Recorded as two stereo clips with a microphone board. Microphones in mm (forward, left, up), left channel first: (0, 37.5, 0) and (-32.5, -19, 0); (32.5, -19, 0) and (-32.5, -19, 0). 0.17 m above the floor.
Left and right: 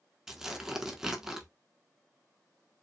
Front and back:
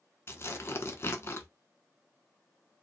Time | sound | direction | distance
0.3 | tearing paper | 40° right | 0.6 m